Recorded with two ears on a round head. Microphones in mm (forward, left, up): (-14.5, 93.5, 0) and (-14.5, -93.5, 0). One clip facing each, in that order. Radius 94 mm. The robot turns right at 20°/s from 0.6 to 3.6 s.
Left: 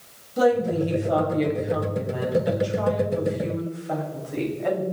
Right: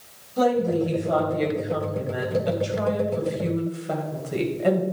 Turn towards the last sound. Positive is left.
turn(degrees=-135)